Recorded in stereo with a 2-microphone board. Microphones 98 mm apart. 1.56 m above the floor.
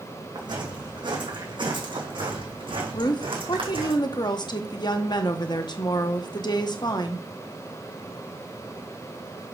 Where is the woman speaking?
50° left (ahead or behind), 1.1 m.